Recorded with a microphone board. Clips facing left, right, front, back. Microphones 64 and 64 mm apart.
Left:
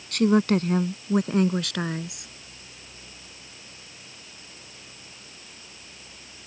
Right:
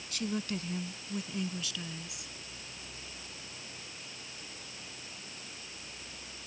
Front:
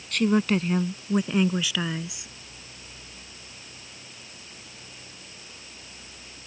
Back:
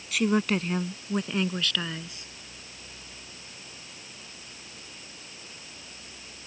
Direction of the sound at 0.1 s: 95° left.